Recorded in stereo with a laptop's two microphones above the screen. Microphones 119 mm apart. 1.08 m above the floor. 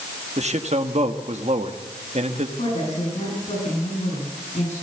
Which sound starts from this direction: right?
A man speaking, at 0.4 s.